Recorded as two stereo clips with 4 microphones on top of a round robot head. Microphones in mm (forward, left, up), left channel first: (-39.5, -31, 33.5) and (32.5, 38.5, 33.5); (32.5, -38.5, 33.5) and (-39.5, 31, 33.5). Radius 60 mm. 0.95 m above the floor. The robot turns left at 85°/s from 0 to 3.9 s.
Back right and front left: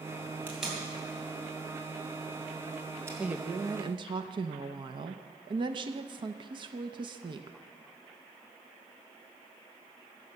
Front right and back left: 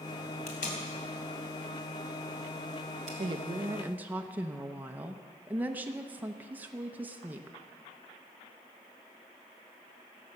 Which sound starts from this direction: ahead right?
Tape being pulled, at 0.5 s.